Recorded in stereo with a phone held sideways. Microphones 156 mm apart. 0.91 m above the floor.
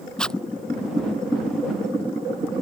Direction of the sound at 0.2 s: 5° left (ahead or behind).